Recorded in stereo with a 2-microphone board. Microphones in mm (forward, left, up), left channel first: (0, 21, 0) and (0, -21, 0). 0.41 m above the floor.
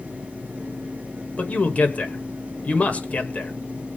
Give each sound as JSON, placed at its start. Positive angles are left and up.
{"t": 1.4, "sound": "a man speaking", "side_deg": 35, "distance_m": 1.6}